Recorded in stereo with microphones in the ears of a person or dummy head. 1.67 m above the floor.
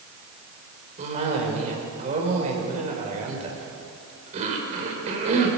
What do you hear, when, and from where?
1.0 s a cough: 35° right (ahead or behind), 5.5 m